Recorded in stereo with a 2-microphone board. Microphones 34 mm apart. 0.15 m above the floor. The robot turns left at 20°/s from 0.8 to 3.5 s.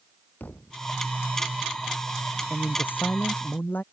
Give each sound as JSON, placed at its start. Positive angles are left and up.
{"t": 0.4, "sound": "a thud", "side_deg": 80}
{"t": 2.5, "sound": "a man speaking", "side_deg": 65}